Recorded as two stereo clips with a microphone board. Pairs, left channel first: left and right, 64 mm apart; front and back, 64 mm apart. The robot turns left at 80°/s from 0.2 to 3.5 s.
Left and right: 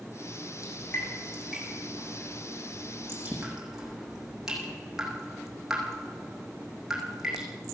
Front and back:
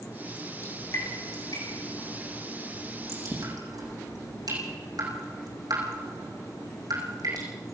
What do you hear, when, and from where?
0.6 s dripping: 55° left, 7.5 m; by 7.5 s 170° right, 7.5 m